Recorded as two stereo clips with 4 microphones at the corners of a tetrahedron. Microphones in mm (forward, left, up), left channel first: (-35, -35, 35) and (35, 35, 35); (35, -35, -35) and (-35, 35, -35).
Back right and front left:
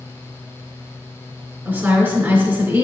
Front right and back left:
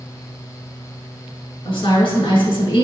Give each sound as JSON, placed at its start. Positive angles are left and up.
{"t": 1.6, "sound": "a woman speaking", "azimuth_deg": -20, "distance_m": 4.0}